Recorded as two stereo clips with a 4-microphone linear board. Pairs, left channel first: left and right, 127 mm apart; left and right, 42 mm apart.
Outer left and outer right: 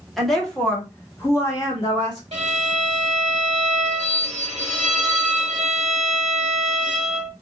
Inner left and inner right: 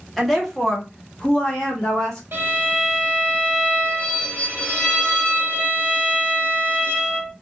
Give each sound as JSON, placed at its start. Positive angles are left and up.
{"t": 0.2, "sound": "a woman speaking", "side_deg": 0, "distance_m": 1.2}
{"t": 2.3, "sound": "a violin", "side_deg": -65, "distance_m": 1.1}